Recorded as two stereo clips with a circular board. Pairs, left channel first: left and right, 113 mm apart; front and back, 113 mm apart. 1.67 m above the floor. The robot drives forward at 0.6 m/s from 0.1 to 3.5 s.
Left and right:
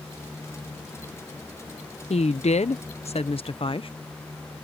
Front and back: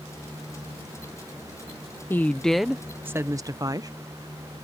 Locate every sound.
2.1 s a woman speaking: 70° left; by 3.9 s 125° left